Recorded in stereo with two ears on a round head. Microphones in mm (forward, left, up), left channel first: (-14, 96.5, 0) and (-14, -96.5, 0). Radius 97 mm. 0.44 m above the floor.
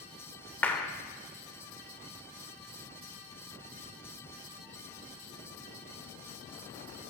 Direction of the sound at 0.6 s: 10° left (ahead or behind).